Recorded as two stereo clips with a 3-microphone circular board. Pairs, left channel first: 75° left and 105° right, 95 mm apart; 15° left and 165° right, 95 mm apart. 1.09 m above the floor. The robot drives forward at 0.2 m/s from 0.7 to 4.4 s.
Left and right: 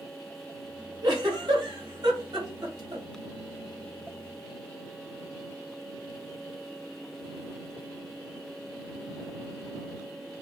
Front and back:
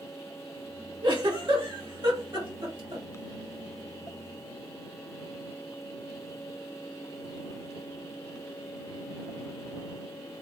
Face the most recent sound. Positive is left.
turn(degrees=-150)